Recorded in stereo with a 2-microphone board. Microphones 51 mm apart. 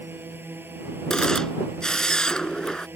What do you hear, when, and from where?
0.0 s a drone: 45° right (ahead or behind)
1.1 s a camera shutter: 15° left (ahead or behind)